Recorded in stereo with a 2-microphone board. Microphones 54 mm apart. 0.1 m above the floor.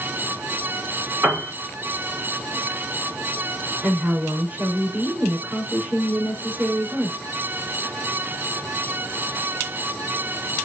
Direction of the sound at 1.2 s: 55° right (ahead or behind).